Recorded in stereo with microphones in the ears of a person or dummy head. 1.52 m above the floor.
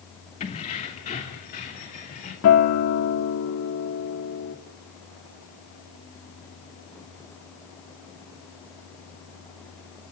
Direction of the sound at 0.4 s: 30° left (ahead or behind).